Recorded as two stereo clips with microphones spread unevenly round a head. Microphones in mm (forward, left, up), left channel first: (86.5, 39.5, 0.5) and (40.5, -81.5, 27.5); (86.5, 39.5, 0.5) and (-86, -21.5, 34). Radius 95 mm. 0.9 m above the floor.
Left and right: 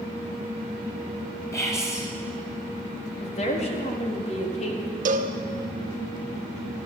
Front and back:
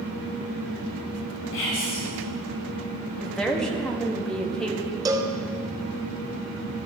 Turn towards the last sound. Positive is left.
turn(degrees=-85)